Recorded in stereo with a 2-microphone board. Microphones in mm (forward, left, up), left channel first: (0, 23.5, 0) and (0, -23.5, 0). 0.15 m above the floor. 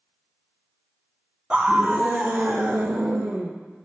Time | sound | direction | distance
1.5 | a scream | 15° right (ahead or behind) | 1.1 m